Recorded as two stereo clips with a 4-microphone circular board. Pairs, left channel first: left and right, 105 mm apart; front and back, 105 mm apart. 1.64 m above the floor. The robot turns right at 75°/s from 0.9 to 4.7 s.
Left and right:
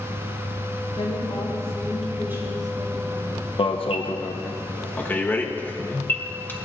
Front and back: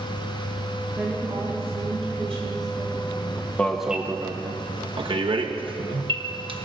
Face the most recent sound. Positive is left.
turn(degrees=160)